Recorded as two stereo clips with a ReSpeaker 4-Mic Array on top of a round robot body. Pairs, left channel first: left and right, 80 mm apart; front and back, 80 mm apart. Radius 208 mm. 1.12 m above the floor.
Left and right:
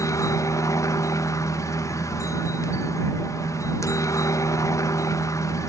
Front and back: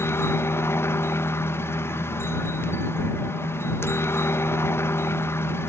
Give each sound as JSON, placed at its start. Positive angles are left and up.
{"t": 0.0, "sound": "a helicopter", "azimuth_deg": 50}